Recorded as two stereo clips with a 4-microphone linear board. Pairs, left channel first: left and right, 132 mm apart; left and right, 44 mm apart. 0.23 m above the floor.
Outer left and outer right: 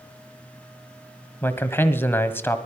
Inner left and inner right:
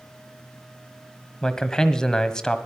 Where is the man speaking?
15° left (ahead or behind), 1.3 m.